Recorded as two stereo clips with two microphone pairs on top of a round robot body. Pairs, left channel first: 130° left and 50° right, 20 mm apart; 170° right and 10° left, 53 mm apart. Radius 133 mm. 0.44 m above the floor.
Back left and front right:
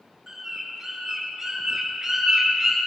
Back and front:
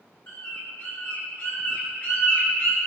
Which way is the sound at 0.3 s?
130° right.